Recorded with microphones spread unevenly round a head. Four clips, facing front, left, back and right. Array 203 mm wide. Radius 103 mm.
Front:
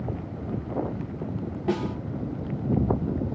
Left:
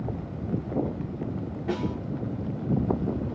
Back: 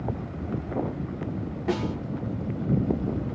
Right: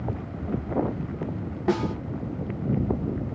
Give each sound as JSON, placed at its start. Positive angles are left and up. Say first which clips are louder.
{"t": 1.7, "sound": "a snare drum", "louder": "right 5 dB, even", "azimuth_deg": -80, "distance_m": 0.8}